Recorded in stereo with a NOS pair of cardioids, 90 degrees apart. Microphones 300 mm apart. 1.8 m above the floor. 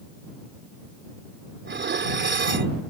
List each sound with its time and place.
1.6 s dishes clattering: 40° right